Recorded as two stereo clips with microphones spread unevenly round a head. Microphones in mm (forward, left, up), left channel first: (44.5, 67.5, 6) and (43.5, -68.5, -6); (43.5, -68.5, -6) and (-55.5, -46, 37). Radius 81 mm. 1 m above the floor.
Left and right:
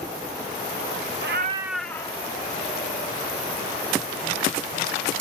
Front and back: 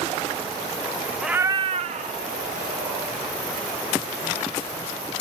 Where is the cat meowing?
110° right; by 3.2 s 145° left.